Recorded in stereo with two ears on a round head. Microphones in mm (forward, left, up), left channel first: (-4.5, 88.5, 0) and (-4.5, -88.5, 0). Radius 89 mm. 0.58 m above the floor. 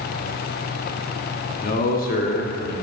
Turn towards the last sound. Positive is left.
turn(degrees=45)  # may be behind; listen again after turning